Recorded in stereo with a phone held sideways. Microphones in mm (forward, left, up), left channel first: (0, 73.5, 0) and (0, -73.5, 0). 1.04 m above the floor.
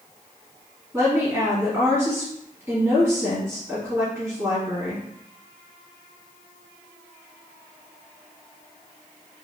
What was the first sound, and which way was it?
A woman speaking, 15° right (ahead or behind).